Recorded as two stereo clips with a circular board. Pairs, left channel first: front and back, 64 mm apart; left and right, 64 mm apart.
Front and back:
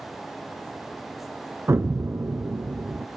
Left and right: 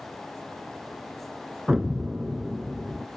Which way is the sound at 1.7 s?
160° right.